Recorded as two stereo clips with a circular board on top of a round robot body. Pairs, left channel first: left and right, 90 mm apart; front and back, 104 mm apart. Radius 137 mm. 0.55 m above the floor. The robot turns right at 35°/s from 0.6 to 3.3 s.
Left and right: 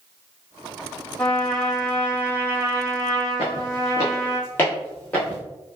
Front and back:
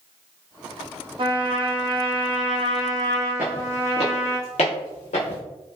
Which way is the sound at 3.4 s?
100° left.